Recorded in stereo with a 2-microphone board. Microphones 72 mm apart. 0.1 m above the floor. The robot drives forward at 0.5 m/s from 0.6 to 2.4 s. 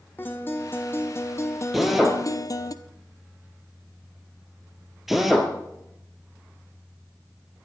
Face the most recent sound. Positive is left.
turn(degrees=-5)  # may be behind; listen again after turning